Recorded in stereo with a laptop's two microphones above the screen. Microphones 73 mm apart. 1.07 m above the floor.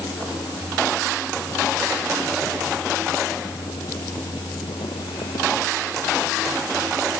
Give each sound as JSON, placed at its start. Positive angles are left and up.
{"t": 0.0, "sound": "a fan", "side_deg": 80}